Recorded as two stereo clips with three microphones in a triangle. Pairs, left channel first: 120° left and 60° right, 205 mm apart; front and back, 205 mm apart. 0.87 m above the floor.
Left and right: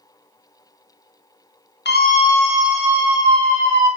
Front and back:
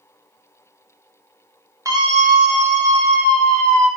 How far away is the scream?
About 0.7 m.